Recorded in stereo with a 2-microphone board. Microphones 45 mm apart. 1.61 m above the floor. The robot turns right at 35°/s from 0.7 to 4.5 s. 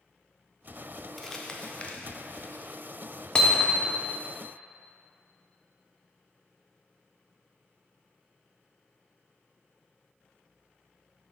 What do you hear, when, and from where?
1.2 s crumpling: 5° left (ahead or behind), 0.6 m; by 2.6 s 55° left (ahead or behind), 0.6 m
3.4 s hammering: 15° left (ahead or behind), 0.6 m; by 4.0 s 30° left (ahead or behind), 0.6 m